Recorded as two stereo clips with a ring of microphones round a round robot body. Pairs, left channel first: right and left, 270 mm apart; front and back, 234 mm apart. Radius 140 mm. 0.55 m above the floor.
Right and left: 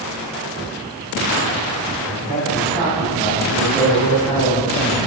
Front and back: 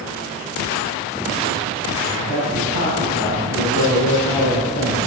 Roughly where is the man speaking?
Ahead.